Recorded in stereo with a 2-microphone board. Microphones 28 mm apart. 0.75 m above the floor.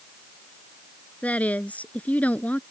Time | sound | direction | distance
1.2 | a woman speaking | 55° left (ahead or behind) | ?